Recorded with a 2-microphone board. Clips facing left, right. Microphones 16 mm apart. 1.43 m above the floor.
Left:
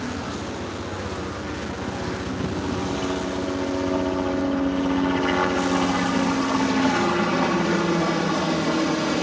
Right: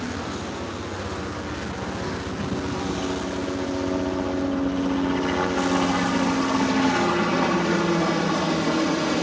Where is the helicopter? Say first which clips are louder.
Even; 15° left (ahead or behind); by 9.2 s 25° left (ahead or behind).